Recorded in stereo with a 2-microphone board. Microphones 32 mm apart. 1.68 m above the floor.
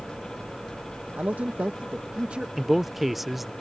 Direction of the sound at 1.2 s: 75° right (ahead or behind).